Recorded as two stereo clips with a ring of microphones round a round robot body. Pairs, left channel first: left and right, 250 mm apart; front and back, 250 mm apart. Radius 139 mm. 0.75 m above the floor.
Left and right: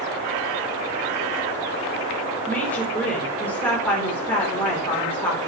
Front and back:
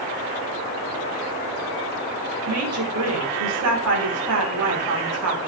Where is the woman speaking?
175° left, 3 m.